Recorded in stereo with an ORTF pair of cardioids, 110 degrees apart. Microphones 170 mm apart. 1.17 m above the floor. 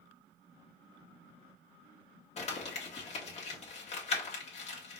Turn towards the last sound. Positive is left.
turn(degrees=40)